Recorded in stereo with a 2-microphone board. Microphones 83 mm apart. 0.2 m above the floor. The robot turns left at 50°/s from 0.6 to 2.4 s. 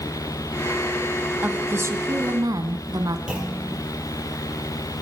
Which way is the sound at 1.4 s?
25° right.